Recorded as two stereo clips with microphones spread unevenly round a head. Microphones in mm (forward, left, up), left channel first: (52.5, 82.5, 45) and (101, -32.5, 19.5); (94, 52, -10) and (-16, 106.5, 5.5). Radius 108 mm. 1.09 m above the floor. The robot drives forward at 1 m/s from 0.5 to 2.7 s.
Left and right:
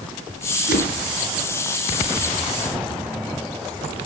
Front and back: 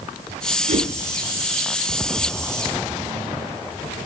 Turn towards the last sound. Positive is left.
turn(degrees=150)